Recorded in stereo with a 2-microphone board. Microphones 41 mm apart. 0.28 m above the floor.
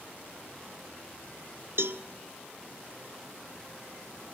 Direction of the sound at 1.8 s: 70° right (ahead or behind).